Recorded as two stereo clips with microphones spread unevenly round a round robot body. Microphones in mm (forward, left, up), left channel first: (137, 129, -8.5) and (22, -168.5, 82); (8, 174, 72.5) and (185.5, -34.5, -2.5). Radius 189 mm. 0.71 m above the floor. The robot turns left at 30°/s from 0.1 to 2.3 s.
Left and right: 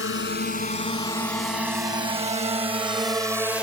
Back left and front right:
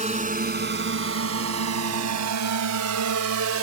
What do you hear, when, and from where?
0.0 s a drone: 15° left; by 3.6 s 20° right